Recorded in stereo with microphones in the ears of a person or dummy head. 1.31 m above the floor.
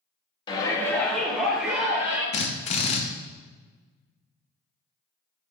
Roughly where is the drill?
Left.